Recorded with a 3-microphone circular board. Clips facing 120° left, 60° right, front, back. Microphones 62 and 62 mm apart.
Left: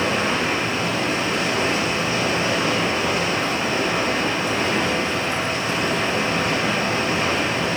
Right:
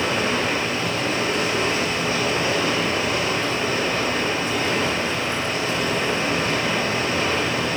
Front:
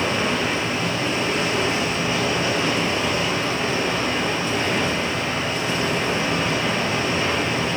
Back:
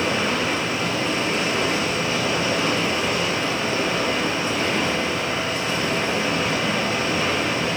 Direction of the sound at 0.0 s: 55° left.